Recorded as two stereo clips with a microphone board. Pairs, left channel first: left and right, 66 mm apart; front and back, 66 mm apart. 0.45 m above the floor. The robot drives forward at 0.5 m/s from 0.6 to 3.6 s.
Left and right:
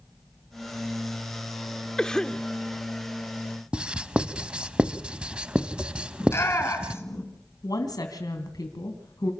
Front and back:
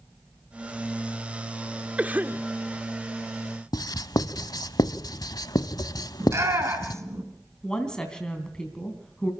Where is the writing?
15° right, 0.7 m.